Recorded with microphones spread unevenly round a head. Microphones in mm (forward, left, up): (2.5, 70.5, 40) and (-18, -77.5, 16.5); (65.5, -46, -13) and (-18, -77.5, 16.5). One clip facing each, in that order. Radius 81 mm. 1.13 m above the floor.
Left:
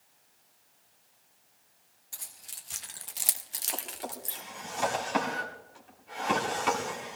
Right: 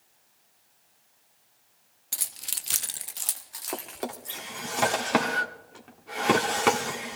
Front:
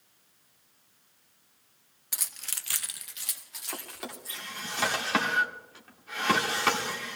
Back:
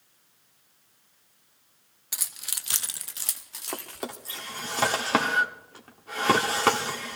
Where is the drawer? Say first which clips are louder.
Right 5 dB, back 5 dB; 125° right, 1.4 m.